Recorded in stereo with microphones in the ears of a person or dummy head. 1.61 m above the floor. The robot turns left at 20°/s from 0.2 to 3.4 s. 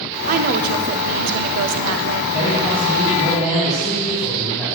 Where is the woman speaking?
45° right, 0.5 m; by 2.2 s 80° right, 0.5 m.